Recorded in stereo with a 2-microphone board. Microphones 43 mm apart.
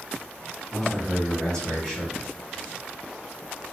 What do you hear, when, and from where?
0.7 s a man speaking: 15° left (ahead or behind), 1.9 m